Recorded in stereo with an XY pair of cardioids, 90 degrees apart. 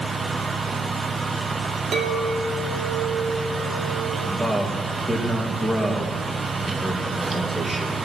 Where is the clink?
60° right, 2.5 m.